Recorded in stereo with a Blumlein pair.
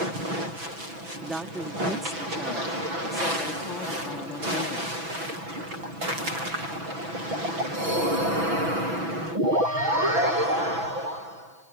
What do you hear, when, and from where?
1.2 s a woman speaking: 10° right; by 5.0 s 30° left